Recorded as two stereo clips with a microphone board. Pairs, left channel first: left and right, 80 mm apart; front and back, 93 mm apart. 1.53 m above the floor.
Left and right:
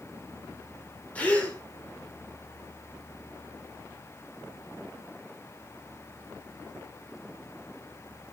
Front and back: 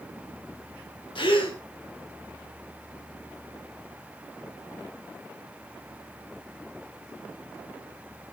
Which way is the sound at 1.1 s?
15° left.